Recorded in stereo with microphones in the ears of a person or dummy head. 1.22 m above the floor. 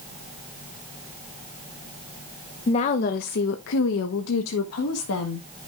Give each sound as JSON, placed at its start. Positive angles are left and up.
{"t": 2.7, "sound": "a woman speaking", "side_deg": 35, "distance_m": 0.7}